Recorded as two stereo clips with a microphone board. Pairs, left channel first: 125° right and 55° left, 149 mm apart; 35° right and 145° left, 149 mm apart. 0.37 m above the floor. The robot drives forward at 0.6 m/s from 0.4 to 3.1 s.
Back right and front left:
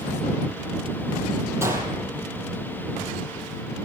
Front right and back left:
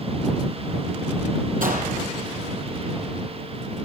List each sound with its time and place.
1.6 s a gunshot: 125° left, 5 m; by 2.0 s 130° left, 5.5 m